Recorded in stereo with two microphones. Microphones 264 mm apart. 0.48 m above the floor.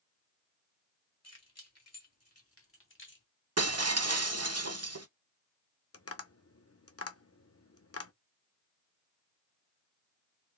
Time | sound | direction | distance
1.2 | keys jangling | 75° left (ahead or behind) | 2 m
3.6 | breaking glass | 70° right (ahead or behind) | 0.7 m
5.9 | tapping | 65° left (ahead or behind) | 0.7 m